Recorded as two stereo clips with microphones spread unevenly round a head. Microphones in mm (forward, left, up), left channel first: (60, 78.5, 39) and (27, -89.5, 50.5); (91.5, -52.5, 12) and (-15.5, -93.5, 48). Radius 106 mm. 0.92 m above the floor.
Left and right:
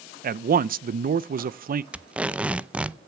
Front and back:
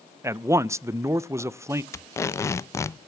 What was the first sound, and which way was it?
A man speaking, 80° right.